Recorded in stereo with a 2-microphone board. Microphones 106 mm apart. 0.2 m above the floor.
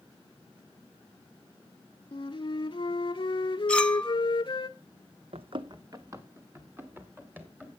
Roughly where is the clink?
Centre.